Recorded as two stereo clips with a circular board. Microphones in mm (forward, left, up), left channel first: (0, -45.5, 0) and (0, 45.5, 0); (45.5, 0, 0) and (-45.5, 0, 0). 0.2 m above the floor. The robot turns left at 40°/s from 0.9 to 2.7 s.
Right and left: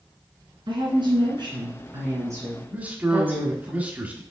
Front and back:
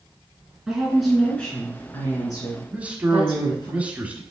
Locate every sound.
0.7 s a woman speaking: 95° left, 2 m; by 3.7 s 25° left, 2 m
2.7 s a man speaking: 135° left, 1.0 m